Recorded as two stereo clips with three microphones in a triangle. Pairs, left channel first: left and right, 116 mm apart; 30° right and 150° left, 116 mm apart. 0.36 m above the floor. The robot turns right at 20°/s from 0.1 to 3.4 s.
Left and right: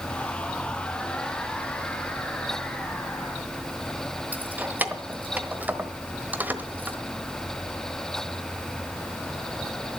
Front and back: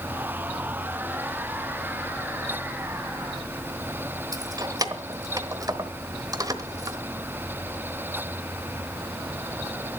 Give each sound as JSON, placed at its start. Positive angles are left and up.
{"t": 4.3, "sound": "keys jangling", "azimuth_deg": -160, "distance_m": 1.1}